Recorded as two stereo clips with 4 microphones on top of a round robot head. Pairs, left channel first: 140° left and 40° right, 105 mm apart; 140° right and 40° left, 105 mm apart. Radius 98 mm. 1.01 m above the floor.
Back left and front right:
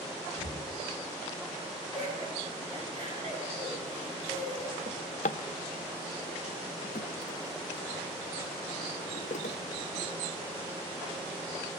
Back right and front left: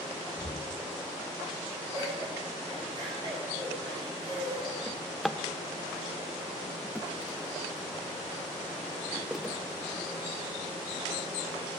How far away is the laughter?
About 7.5 m.